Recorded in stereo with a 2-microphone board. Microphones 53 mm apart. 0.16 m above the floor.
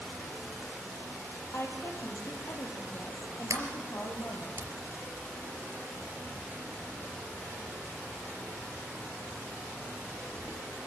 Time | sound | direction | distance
1.5 | a woman speaking | 55° left (ahead or behind) | 5 m
3.5 | a sliding door | 65° right (ahead or behind) | 3.5 m